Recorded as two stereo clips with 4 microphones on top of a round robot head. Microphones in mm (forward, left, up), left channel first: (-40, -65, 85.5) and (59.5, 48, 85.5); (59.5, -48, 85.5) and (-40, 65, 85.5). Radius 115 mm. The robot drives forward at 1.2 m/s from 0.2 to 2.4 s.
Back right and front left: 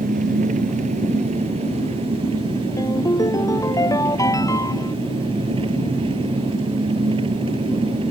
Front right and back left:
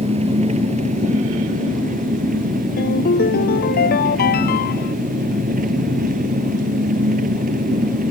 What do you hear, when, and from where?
0.0 s an engine running: 85° left; by 8.1 s 105° left
2.8 s a ringtone: 65° right